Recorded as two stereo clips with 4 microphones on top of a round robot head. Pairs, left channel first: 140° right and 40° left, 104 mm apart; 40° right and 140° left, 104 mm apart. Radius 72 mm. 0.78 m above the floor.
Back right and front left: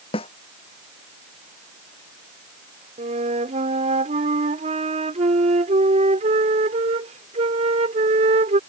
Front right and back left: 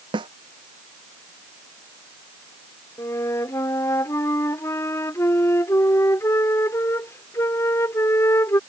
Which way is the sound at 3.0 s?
25° left.